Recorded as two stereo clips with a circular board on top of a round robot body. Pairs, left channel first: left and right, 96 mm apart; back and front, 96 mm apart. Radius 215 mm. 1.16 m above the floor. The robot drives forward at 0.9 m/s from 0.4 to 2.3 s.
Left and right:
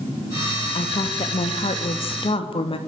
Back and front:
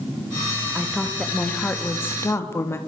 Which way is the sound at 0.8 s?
85° left.